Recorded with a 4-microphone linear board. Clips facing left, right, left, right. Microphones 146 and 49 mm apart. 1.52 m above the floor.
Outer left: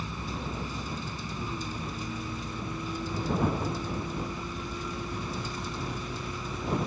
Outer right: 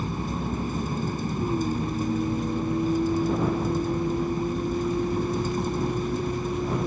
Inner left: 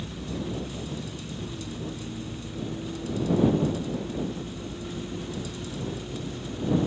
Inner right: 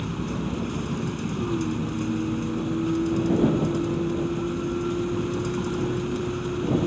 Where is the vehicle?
50° right (ahead or behind).